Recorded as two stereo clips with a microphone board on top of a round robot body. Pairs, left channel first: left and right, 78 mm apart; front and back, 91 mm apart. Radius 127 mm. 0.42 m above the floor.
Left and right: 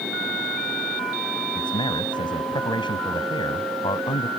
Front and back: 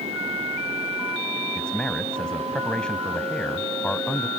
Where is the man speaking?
80° left.